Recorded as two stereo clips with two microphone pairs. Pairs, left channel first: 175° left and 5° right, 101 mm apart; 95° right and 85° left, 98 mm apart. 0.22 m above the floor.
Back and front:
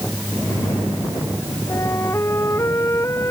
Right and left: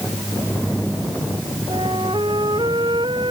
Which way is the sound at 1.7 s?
115° left.